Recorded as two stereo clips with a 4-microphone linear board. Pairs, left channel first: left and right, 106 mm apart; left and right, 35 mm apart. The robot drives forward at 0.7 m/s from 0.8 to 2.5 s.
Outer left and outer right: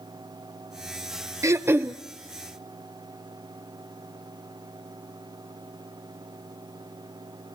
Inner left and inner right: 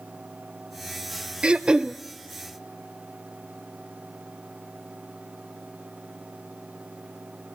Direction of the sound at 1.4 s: 30° right (ahead or behind).